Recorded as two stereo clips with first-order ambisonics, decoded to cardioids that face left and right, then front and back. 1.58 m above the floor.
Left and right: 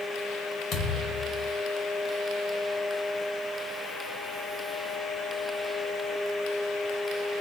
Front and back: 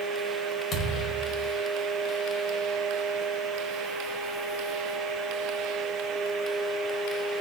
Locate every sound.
0.7 s a thud: 50° left, 1.2 m